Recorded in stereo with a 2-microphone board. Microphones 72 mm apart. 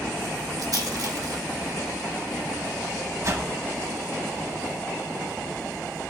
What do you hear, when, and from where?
0.6 s a rattle: 65° right (ahead or behind), 1.7 m
3.2 s a whoosh: 45° right (ahead or behind), 0.9 m